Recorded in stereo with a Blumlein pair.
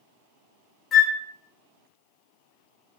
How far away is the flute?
About 0.7 m.